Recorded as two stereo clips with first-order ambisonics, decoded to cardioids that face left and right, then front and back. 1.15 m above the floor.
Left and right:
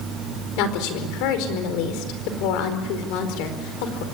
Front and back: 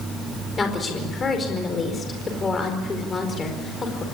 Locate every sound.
0.6 s a woman speaking: 75° left, 4.5 m